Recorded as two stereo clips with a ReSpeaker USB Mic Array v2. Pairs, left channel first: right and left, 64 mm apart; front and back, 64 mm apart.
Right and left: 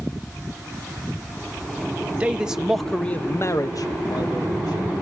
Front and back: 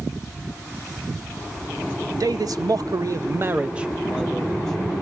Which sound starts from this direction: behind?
A man speaking, at 2.2 s.